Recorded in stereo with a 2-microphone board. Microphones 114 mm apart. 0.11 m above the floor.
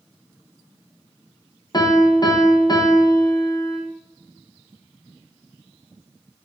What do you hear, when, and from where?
1.7 s a piano: 35° left (ahead or behind), 2.0 m